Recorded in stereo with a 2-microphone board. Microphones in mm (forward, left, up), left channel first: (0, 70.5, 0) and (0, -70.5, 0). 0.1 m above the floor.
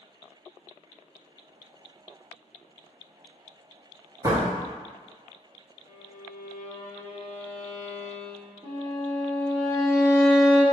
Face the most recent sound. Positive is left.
turn(degrees=-35)  # may be behind; listen again after turning